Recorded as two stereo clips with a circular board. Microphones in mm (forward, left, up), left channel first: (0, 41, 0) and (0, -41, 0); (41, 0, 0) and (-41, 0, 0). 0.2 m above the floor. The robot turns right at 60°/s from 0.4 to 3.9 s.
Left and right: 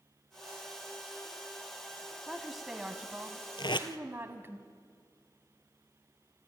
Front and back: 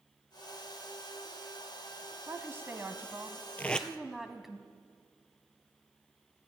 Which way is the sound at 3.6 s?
70° left.